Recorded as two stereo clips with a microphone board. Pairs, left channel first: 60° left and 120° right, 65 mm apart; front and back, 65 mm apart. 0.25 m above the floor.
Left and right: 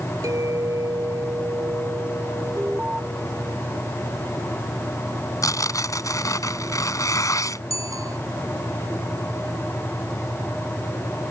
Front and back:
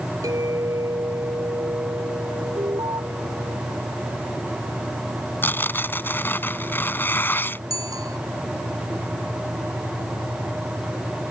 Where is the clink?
150° right.